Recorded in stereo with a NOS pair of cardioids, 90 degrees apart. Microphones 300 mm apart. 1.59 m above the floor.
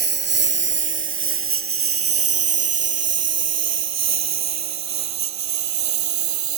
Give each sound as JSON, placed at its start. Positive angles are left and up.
{"t": 0.0, "sound": "a lawn mower", "azimuth_deg": -35}